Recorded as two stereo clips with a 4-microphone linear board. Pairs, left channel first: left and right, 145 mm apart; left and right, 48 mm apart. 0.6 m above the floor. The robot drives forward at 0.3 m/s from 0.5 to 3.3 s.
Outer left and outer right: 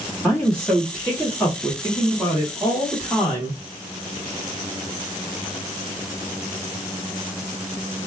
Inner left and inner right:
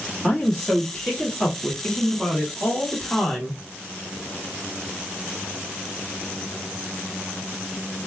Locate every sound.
0.2 s a woman speaking: 10° left (ahead or behind), 1.3 m